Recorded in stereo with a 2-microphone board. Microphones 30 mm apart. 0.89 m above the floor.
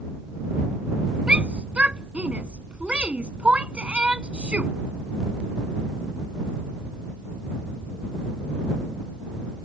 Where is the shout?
40° right (ahead or behind).